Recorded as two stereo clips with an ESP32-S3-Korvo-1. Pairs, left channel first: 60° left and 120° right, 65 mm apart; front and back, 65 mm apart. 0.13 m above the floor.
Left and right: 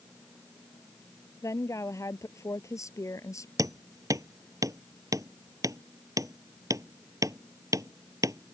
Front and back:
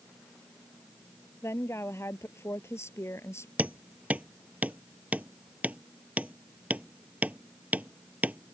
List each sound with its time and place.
1.4 s a woman speaking: 40° left
3.6 s hammering: 115° right